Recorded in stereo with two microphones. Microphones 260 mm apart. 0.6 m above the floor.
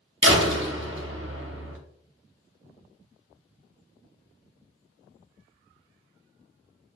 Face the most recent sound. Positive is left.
turn(degrees=-50)  # may be behind; listen again after turning